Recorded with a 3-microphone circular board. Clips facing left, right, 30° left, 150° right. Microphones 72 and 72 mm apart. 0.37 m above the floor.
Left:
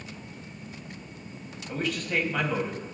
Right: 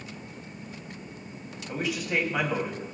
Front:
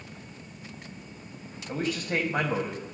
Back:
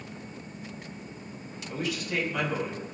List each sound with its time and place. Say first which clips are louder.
1.7 s a man speaking: even, front 2 dB; 10° right, 2.5 m